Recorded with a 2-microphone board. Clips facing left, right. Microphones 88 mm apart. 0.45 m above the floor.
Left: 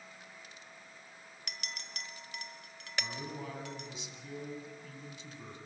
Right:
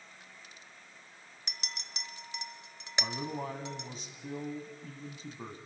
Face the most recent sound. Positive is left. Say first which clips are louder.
# right 5 dB
turn(degrees=-40)  # may be behind; listen again after turning